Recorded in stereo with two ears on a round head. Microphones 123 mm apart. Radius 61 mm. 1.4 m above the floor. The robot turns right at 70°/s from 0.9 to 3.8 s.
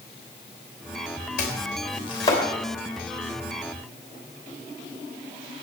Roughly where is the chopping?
Left.